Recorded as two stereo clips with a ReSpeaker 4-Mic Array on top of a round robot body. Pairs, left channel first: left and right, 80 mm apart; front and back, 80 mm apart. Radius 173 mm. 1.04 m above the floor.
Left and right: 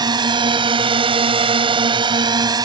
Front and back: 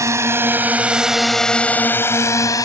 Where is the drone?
125° right; by 2.6 s 45° right.